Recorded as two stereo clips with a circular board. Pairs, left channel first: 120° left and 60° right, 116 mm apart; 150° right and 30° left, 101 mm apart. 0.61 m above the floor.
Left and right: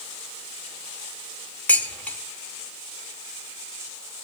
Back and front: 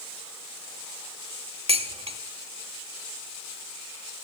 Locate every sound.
1.7 s dishes clattering: 45° left, 0.9 m